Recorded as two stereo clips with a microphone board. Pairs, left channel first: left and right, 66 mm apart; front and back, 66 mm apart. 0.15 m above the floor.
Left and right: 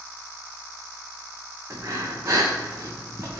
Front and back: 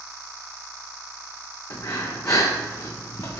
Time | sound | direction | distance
1.7 | breathing | 40° right | 1.7 m